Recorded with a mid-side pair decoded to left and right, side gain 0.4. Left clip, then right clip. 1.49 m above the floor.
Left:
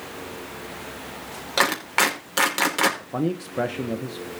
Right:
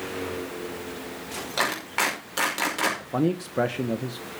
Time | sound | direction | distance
1.6 | a clap | 45° left | 5 m
3.0 | a man speaking | 10° right | 1.3 m